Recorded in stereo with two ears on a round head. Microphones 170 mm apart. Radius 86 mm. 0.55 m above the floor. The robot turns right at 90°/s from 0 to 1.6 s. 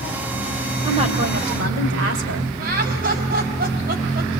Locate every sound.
0.8 s a woman speaking: 160° right, 3 m; by 2.5 s 90° right, 3 m
2.6 s laughter: 50° right (ahead or behind), 3.5 m